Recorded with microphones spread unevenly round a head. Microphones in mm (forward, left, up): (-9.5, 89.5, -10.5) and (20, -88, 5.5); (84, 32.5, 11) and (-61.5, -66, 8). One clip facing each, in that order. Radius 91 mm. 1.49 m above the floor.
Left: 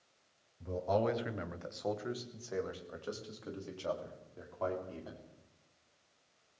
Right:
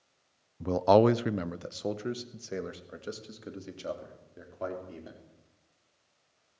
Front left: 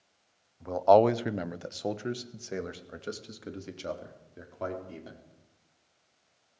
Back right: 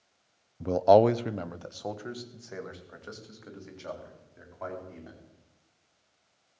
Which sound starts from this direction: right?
A man speaking, at 0.6 s.